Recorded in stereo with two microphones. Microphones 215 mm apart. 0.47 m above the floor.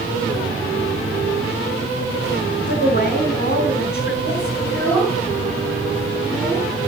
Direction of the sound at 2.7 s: 45° left (ahead or behind).